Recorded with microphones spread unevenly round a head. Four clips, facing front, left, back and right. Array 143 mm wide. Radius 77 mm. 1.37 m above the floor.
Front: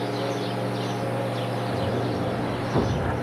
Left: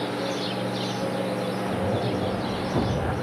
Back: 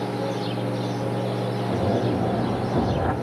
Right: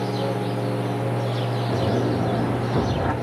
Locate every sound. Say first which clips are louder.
1.7 s a zipper: right 6 dB, back 5 dB; 170° right, 6 m